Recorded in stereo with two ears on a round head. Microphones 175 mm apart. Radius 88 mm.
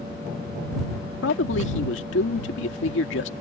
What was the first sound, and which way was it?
A man speaking, 65° left (ahead or behind).